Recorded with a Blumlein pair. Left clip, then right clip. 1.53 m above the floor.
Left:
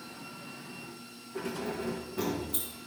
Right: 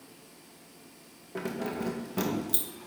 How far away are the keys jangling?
About 1.2 m.